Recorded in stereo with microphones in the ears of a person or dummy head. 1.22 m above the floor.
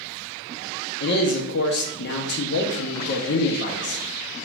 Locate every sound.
1.0 s a man speaking: 55° left (ahead or behind), 0.6 m